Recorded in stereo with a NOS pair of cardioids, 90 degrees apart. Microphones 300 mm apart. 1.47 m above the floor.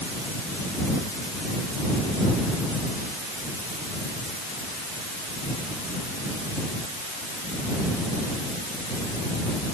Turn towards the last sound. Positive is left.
No sound to turn to.